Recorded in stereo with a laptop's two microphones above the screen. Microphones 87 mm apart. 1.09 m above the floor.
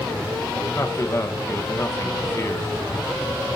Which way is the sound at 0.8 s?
35° left (ahead or behind).